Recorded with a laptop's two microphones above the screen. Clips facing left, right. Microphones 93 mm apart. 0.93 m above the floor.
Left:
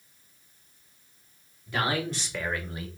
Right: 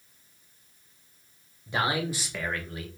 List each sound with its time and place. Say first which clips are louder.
1.7 s a man speaking: right 1 dB; 20° right (ahead or behind), 2 m; by 2.9 s 30° left (ahead or behind), 1.3 m